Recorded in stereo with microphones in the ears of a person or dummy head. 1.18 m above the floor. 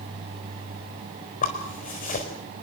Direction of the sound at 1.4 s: 40° left (ahead or behind).